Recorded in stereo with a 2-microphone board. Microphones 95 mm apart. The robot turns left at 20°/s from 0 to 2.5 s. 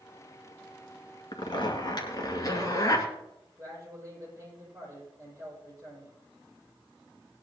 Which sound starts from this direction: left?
A zipper, at 1.3 s.